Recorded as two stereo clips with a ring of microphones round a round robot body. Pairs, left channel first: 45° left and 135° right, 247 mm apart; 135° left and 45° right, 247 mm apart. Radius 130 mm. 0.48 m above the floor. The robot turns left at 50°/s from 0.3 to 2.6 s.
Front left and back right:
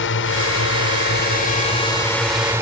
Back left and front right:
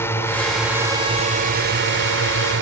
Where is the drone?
55° left; by 2.6 s 60° right.